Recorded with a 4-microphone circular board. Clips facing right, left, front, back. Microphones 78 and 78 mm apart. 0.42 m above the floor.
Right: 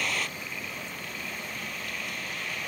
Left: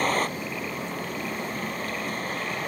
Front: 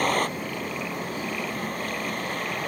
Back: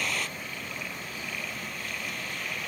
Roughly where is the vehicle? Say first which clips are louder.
Left 7 dB, front 9 dB; ahead left.